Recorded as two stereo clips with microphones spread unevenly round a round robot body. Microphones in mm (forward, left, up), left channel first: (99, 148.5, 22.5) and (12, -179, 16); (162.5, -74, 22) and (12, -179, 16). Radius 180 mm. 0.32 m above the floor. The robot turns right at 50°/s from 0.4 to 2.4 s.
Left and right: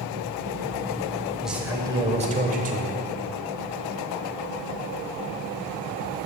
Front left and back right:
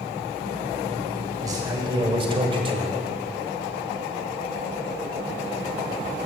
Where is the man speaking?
165° left, 1.0 m; by 3.0 s 145° right, 1.0 m.